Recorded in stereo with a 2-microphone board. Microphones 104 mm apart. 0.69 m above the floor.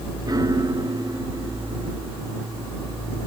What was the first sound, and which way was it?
A piano, 40° right (ahead or behind).